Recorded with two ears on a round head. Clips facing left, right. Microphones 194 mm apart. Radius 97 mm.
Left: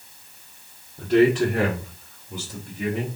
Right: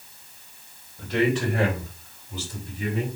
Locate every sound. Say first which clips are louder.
1.0 s a man speaking: left 6 dB; 40° left (ahead or behind), 2 m; by 3.1 s 60° left (ahead or behind), 3 m